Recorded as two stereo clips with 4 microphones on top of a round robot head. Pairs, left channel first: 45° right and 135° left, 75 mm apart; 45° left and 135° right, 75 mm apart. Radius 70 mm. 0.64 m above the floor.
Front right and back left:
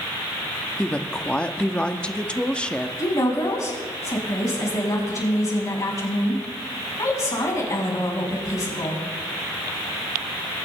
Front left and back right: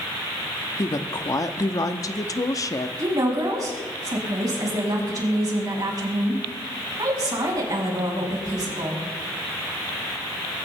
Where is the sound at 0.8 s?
25° left, 1.2 m.